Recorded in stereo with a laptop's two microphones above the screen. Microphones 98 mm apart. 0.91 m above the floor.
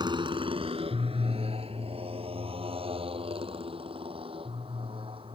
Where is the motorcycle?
50° right (ahead or behind); by 5.3 s 65° right (ahead or behind).